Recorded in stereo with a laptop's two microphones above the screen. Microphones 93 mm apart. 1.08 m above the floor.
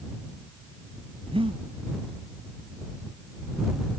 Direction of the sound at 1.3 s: 80° right.